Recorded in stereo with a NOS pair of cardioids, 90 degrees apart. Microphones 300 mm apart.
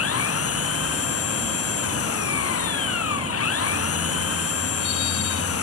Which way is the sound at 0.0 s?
50° left.